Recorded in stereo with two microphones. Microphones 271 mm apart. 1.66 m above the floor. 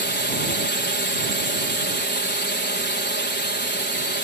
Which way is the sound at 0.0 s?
40° left (ahead or behind).